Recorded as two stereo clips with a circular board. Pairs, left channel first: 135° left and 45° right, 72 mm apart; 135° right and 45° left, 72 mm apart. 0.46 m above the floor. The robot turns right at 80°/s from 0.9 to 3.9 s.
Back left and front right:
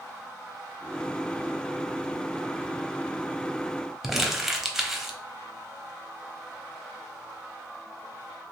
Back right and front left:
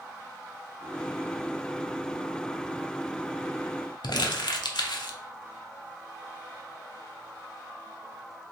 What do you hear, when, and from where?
4.0 s crumpling: 130° right, 0.6 m